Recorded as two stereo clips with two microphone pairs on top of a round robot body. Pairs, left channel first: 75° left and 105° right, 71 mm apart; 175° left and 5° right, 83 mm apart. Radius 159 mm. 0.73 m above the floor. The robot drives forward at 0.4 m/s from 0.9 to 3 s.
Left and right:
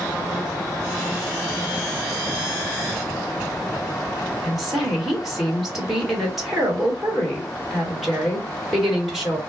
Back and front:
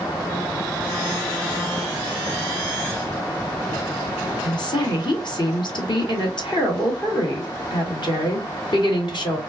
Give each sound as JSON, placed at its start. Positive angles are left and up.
{"t": 4.4, "sound": "a woman speaking", "azimuth_deg": 175, "distance_m": 1.4}